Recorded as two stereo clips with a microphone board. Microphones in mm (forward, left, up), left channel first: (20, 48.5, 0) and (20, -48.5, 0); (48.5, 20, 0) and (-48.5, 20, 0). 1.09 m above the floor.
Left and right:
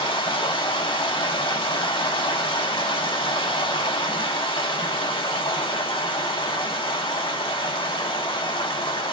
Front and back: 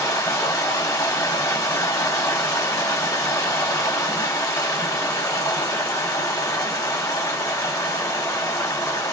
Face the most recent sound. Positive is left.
turn(degrees=60)